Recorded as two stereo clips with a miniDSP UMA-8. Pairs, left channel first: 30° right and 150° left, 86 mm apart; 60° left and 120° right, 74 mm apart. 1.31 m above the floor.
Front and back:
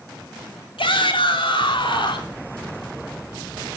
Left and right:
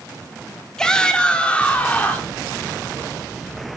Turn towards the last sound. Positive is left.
turn(degrees=-5)